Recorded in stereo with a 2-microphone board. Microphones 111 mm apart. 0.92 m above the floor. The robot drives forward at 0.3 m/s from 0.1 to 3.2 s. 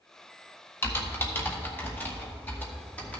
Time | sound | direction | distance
0.8 | typing on a keyboard | 25° left (ahead or behind) | 1.1 m